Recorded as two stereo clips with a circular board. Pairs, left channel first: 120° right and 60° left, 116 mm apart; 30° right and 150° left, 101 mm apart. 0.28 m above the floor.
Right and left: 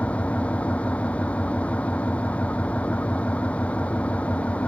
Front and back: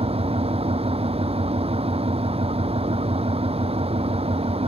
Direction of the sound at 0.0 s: 160° left.